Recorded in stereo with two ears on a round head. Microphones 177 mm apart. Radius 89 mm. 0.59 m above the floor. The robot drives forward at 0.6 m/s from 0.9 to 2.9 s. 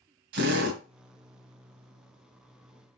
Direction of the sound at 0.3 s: 60° right (ahead or behind).